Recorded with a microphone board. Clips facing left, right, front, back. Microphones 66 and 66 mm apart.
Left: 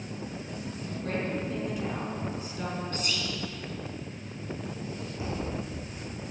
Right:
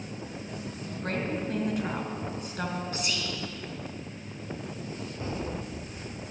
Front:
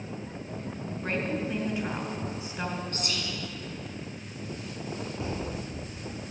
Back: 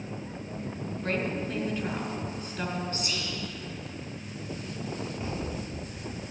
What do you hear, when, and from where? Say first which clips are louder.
1.0 s a woman speaking: right 1 dB, even; 70° right, 2.5 m
2.9 s whispering: even, even; 10° right, 3 m
5.2 s a thud: even, front 1 dB; 10° left, 4.5 m